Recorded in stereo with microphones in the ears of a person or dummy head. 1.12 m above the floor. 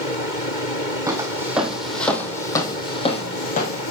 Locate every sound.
1.1 s footsteps: 15° right (ahead or behind), 3 m; by 3.9 s 50° left (ahead or behind), 3 m